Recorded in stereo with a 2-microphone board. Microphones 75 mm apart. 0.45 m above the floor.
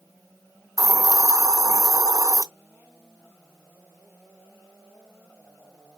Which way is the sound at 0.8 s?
50° right (ahead or behind).